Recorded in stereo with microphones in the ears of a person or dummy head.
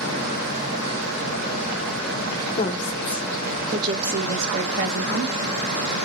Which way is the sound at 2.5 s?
45° left (ahead or behind).